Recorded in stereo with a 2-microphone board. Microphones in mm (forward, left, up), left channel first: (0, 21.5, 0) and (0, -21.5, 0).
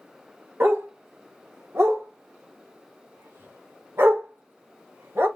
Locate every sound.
0.6 s a dog barking: 65° right (ahead or behind), 1.5 m